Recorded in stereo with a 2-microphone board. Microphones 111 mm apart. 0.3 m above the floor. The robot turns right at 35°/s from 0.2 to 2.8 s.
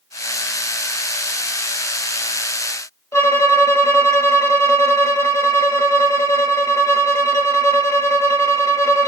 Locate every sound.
3.1 s a violin: 25° left (ahead or behind), 1.0 m